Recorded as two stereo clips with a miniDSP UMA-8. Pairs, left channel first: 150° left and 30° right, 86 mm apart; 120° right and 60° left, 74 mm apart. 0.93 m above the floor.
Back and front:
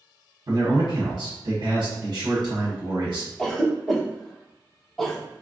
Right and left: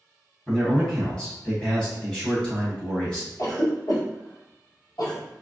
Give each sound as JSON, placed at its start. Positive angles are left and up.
{"t": 0.5, "sound": "a man speaking", "azimuth_deg": -45, "distance_m": 1.2}
{"t": 3.4, "sound": "a cough", "azimuth_deg": -130, "distance_m": 1.0}